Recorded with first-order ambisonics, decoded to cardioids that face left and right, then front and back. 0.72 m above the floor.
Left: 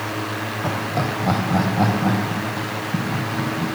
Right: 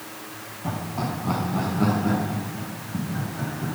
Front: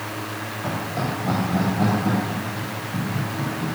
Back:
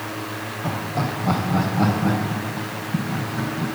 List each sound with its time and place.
0.6 s laughter: 90° left, 2.5 m; by 3.7 s 110° left, 6.5 m